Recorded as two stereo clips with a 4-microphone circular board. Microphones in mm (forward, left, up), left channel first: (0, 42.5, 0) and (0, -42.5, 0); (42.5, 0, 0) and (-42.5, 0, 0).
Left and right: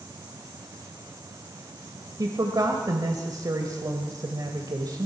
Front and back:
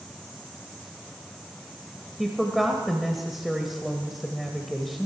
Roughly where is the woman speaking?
Right.